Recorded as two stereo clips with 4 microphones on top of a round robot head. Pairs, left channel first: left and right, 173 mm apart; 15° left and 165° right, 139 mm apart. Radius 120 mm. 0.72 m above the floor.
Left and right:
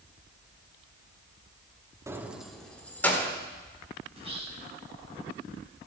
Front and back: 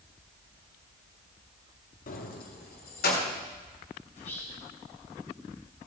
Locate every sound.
2.1 s keys jangling: 15° right, 0.8 m; by 3.3 s 15° left, 1.8 m
4.1 s whispering: 35° right, 3 m